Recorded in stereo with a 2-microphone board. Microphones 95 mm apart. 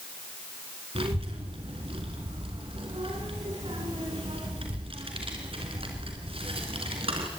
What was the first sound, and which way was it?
A child speaking, 75° right (ahead or behind).